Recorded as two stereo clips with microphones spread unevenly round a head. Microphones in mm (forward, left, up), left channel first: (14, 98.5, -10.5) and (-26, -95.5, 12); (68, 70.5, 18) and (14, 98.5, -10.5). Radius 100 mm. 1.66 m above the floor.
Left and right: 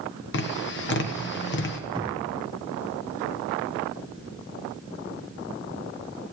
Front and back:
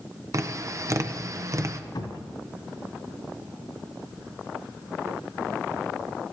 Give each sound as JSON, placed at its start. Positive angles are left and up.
{"t": 0.3, "sound": "tapping", "azimuth_deg": 115, "distance_m": 1.3}
{"t": 1.9, "sound": "a cupboard door", "azimuth_deg": -30, "distance_m": 3.0}